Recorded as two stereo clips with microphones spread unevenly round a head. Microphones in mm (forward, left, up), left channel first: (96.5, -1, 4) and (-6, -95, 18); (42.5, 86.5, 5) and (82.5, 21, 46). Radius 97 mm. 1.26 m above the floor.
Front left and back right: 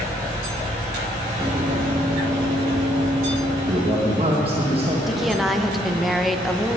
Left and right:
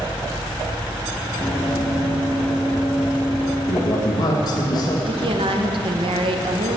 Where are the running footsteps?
145° right, 1.4 m; by 3.6 s 165° left, 2.5 m.